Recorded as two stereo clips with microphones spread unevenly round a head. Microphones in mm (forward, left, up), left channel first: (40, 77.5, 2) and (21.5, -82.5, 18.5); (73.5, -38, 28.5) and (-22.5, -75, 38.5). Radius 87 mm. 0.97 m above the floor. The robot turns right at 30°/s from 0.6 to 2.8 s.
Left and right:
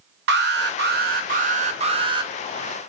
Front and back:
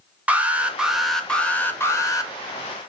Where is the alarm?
80° right, 0.8 m; by 2.3 s 30° right, 0.8 m.